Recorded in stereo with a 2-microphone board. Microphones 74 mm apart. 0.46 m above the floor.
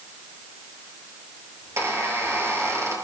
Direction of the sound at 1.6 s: 35° right (ahead or behind).